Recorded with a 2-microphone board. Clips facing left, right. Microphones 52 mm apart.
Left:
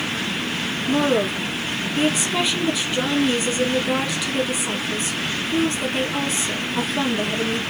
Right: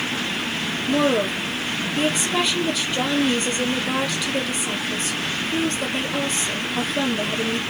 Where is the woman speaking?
Centre (ahead or behind), 2.5 m.